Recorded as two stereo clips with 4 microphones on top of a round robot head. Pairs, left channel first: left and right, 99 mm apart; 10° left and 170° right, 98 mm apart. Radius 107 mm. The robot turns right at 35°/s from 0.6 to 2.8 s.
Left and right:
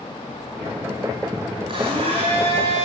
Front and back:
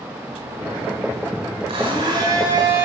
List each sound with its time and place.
1.7 s a blender: 135° right, 7 m; by 2.9 s 95° right, 7 m